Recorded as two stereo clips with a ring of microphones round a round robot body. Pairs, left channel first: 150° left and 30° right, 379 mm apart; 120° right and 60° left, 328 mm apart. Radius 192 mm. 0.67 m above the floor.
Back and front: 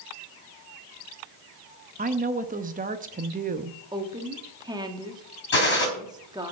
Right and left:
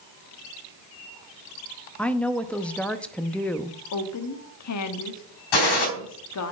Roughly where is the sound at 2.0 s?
Ahead right.